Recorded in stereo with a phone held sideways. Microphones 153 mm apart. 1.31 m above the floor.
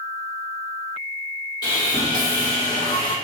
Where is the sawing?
25° left (ahead or behind), 1.2 m.